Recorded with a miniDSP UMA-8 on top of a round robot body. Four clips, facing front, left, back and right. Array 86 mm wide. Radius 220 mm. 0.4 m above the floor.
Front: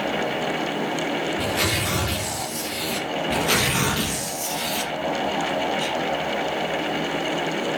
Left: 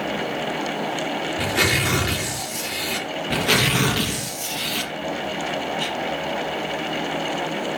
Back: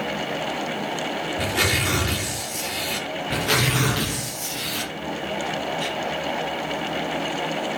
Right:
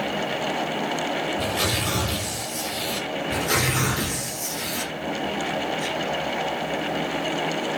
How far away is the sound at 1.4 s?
About 7.5 m.